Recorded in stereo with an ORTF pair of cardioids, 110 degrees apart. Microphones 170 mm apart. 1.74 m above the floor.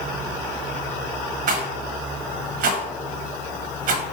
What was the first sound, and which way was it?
A rattle, 60° right.